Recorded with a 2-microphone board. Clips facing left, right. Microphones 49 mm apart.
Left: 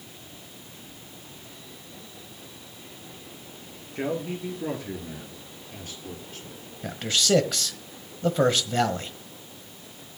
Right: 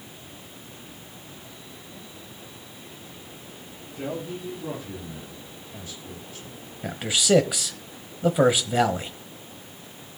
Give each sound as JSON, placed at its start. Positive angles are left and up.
{"t": 4.0, "sound": "a man speaking", "side_deg": 65, "distance_m": 3.5}
{"t": 6.8, "sound": "a man speaking", "side_deg": -10, "distance_m": 1.2}